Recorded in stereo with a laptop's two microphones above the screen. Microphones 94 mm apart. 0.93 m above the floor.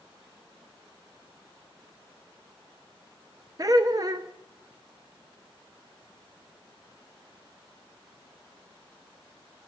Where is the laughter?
40° right (ahead or behind), 0.6 m.